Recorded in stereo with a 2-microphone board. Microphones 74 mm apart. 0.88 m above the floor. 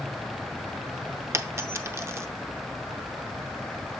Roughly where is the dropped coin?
Right.